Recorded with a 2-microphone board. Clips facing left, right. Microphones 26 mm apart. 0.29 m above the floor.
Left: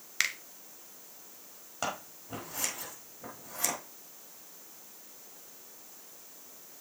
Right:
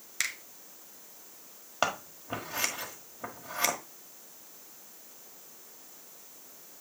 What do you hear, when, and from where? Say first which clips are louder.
0.2 s a finger snap: left 3 dB; 25° left (ahead or behind), 0.9 m
1.8 s scissors: right 5 dB; 35° right (ahead or behind), 1.3 m